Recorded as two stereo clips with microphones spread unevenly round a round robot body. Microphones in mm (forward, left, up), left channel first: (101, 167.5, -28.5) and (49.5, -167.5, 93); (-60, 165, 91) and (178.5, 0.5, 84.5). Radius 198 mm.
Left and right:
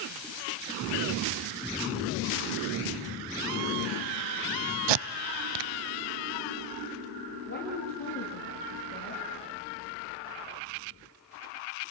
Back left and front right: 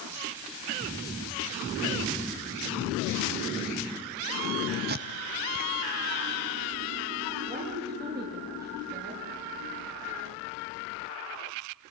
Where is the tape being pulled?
100° right, 0.5 m.